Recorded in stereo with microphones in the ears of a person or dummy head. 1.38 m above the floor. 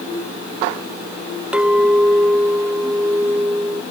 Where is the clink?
5° right (ahead or behind).